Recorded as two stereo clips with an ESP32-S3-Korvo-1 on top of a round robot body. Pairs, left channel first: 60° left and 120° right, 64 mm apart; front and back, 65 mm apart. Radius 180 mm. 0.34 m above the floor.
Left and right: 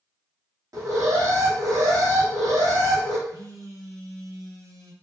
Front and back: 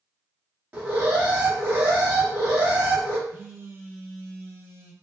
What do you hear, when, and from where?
0.7 s an alarm: 120° right, 1.4 m
3.3 s a phone buzzing: 125° right, 1.1 m